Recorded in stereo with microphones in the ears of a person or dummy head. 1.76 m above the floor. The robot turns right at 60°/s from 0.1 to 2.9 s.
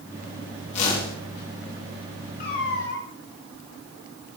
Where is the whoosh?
40° left (ahead or behind), 3 m; by 1.1 s 60° left (ahead or behind), 3 m.